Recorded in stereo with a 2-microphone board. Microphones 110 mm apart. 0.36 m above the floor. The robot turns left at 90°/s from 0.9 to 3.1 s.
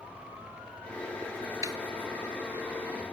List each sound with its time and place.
1.6 s a snare drum: 30° right (ahead or behind); by 1.8 s 45° right (ahead or behind)